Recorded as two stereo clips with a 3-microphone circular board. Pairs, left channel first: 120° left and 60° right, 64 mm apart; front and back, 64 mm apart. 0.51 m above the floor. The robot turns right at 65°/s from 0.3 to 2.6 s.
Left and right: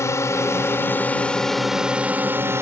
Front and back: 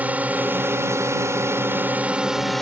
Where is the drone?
125° left; by 2.6 s 85° right.